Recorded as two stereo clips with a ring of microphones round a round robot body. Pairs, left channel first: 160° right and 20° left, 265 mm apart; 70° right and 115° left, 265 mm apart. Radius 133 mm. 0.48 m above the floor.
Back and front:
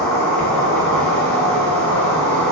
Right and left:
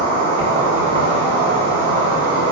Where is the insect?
125° left, 1.7 m.